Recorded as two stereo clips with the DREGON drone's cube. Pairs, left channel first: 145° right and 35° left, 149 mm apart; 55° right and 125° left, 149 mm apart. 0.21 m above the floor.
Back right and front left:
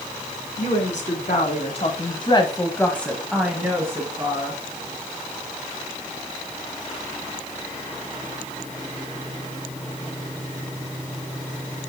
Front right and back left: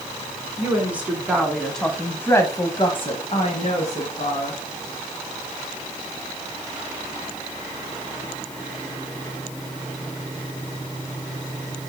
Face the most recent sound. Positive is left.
turn(degrees=-25)